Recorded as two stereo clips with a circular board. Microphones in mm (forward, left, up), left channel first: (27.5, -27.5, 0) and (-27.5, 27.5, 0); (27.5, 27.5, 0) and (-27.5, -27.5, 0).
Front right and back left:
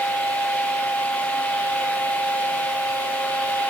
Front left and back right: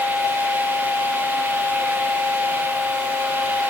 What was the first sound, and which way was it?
Only background noise.